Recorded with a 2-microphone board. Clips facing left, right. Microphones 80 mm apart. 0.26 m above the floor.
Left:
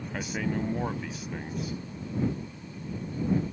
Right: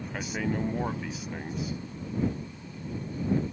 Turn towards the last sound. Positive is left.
turn(degrees=-5)  # may be behind; listen again after turning